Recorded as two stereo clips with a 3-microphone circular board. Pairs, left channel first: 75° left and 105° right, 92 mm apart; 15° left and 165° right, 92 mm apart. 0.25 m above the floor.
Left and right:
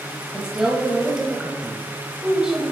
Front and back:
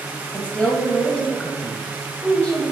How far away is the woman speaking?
About 0.9 m.